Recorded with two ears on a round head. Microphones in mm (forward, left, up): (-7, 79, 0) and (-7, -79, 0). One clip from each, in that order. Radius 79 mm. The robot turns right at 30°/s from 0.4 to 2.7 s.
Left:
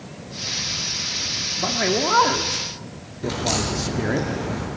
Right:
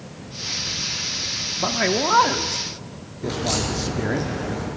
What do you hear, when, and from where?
1.6 s a man speaking: 30° right, 1.0 m; by 4.2 s straight ahead, 1.0 m
3.2 s a crack: 15° left (ahead or behind), 8 m